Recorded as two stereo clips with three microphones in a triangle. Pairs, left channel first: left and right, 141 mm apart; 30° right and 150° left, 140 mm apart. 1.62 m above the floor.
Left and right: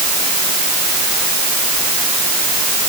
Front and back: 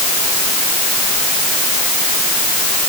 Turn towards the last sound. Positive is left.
No sound to turn to.